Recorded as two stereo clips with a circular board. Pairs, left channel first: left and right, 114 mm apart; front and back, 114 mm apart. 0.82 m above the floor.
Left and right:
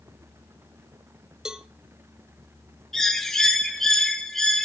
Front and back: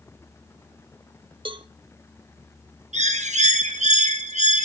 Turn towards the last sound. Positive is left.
turn(degrees=175)